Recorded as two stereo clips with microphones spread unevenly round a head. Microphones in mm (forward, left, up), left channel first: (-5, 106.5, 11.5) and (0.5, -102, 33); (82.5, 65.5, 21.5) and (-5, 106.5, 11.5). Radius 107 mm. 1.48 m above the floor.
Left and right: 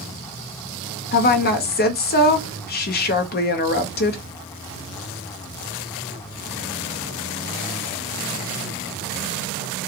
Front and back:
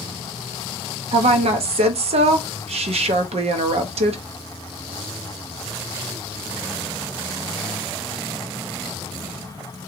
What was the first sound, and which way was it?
A woman speaking, 140° left.